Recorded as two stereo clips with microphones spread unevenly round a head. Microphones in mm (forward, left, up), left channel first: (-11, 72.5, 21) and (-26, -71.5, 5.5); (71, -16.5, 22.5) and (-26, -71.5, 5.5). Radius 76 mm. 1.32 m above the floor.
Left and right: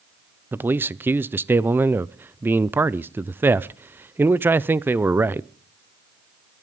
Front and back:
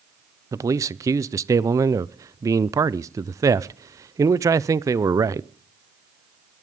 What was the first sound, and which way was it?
A man speaking, 155° right.